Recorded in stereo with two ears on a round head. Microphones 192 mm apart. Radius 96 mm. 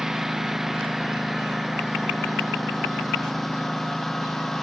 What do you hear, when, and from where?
0.0 s a lawn mower: centre (ahead or behind)